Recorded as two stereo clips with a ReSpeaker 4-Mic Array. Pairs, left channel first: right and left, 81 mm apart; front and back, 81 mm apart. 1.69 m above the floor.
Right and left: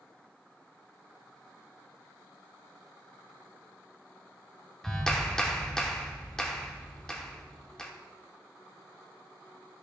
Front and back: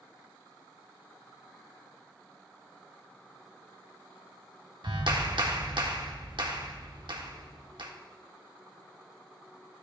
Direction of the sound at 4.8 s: 170° right.